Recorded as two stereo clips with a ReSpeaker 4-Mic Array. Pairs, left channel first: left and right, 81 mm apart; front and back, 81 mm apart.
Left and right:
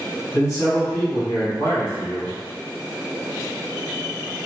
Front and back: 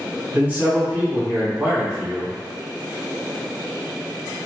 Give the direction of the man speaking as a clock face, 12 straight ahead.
8 o'clock.